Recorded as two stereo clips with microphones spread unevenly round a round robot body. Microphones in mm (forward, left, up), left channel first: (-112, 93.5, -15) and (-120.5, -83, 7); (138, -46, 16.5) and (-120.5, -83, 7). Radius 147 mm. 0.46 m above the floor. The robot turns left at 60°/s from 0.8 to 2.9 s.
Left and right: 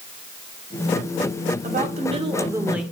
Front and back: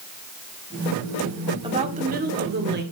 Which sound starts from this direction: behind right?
A woman speaking, at 1.6 s.